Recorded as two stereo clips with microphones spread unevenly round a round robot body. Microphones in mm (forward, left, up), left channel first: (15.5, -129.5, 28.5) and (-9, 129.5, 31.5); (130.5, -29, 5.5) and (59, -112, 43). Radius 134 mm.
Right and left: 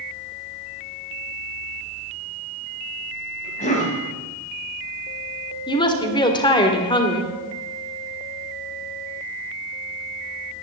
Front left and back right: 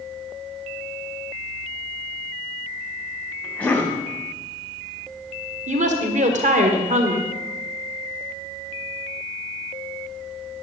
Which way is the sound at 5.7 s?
155° right.